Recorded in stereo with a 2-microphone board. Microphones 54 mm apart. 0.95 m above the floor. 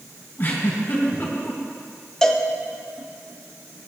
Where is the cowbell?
10° left (ahead or behind), 0.7 m.